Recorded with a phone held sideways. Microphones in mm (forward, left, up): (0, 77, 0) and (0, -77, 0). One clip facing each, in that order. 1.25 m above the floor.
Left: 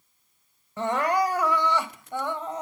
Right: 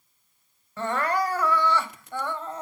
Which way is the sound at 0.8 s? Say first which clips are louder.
Left 2 dB; 15° left (ahead or behind).